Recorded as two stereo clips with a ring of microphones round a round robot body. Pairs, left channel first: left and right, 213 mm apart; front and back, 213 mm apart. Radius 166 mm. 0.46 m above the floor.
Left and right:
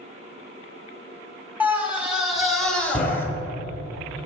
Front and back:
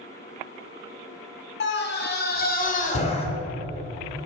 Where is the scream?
10° right, 2 m; by 3.2 s 25° left, 1.4 m.